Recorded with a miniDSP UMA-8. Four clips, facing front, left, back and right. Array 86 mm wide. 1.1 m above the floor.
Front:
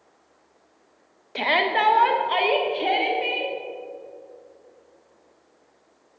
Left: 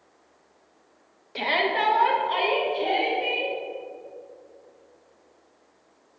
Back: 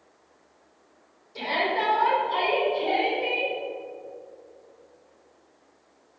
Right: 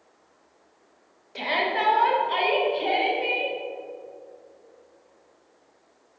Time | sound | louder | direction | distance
1.4 | a shout | left 1 dB, front 4 dB | 15° left | 0.7 m